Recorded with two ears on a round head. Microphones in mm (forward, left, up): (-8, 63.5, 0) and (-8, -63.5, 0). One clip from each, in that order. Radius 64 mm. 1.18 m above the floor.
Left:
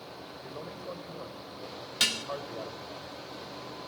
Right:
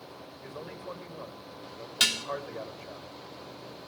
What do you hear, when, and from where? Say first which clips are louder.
0.4 s a man speaking: right 1 dB; 60° right (ahead or behind), 5 m
2.0 s dishes clattering: right 2 dB; 10° right (ahead or behind), 1.1 m